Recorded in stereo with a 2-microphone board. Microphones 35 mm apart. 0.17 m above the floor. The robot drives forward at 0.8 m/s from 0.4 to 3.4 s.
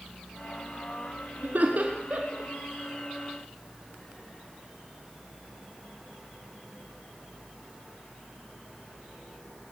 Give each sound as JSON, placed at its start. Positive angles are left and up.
{"t": 1.4, "sound": "laughter", "side_deg": -55, "distance_m": 2.0}